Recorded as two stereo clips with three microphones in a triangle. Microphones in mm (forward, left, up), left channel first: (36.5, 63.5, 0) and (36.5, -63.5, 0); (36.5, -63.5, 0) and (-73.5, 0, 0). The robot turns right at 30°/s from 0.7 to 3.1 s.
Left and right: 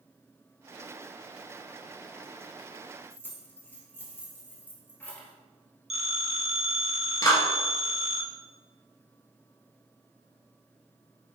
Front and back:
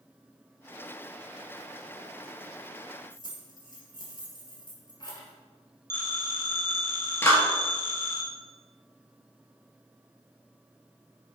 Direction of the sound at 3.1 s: 20° left.